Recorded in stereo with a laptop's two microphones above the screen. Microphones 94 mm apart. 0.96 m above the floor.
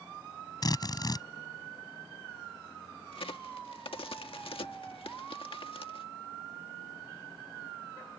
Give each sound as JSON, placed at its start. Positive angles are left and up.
{"t": 0.6, "sound": "a drill", "side_deg": 45}
{"t": 3.1, "sound": "a crack", "side_deg": 75}